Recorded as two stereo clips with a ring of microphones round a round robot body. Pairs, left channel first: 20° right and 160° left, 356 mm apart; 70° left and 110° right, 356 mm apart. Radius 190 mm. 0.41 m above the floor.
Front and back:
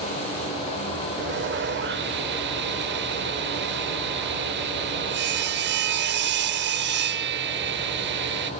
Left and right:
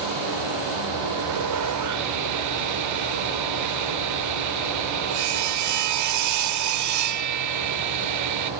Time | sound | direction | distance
1.2 | sawing | 145° right | 1.0 m